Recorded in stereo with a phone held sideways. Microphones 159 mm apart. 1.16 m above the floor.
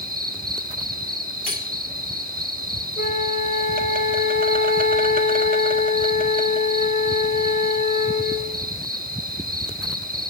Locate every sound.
0.0 s an insect: 65° right (ahead or behind), 1.7 m
1.5 s cutlery clinking: 55° left (ahead or behind), 2 m
3.0 s a flute: 65° left (ahead or behind), 1.3 m